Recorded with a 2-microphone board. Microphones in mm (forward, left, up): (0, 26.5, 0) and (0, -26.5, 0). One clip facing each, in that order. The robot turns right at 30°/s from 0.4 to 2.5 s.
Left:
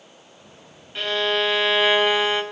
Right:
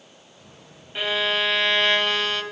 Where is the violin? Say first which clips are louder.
Left 1 dB; 15° right, 1.5 m; by 2.4 s 30° left, 1.5 m.